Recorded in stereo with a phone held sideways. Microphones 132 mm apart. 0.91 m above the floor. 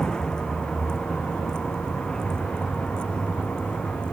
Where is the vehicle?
5° left (ahead or behind); by 4.1 s 10° left (ahead or behind).